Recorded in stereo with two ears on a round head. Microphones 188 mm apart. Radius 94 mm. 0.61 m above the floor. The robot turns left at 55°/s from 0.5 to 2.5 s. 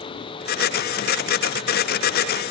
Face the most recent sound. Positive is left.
No sound to turn to.